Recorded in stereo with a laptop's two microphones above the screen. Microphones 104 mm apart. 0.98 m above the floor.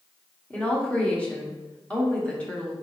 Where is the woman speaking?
10° left (ahead or behind), 0.9 m.